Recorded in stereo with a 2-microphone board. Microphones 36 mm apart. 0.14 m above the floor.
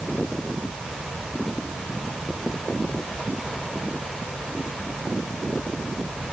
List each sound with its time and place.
Only background noise.